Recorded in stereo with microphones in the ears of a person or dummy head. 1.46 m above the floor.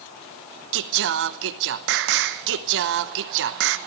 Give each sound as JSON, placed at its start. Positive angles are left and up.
{"t": 0.7, "sound": "singing", "side_deg": -60, "distance_m": 0.9}